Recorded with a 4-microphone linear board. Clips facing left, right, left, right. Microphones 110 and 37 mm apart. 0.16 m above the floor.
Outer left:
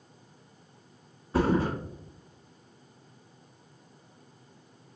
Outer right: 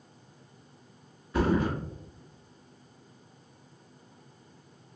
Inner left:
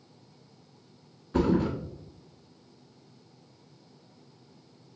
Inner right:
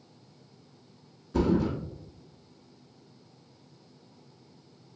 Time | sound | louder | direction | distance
1.3 | a thud | outer left 1 dB, inner left 1 dB | 35° left (ahead or behind) | 1.0 m